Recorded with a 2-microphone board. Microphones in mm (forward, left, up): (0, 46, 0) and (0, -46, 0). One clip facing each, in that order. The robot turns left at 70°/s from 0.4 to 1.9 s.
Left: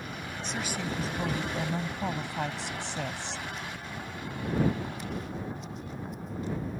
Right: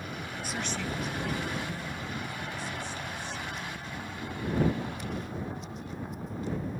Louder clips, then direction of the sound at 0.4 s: Left 1 dB; 170° right.